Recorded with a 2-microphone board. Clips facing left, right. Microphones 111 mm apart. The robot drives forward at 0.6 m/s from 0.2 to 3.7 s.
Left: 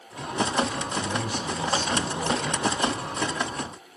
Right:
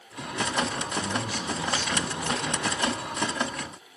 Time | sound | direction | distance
1.0 | a man speaking | 65° left (ahead or behind) | 5.5 m